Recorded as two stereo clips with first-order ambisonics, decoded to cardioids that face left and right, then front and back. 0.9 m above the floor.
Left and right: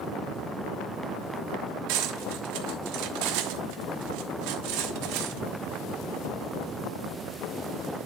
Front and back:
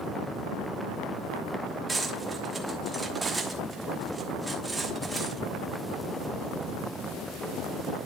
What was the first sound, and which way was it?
Cutlery clinking, 95° right.